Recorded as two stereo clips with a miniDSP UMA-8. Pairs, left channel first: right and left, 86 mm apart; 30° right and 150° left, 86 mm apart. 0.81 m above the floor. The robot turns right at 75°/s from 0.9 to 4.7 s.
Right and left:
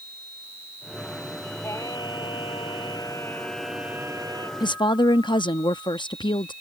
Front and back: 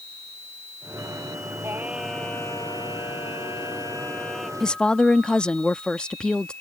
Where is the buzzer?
No buzzer in this recording.